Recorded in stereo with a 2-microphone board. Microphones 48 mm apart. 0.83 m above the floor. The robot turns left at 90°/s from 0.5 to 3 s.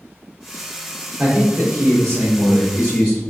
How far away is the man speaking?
About 1.2 m.